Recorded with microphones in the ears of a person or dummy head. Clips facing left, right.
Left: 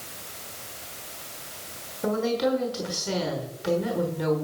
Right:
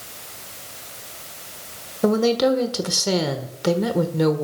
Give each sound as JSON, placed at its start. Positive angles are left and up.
{"t": 2.0, "sound": "a woman speaking", "side_deg": -70, "distance_m": 1.4}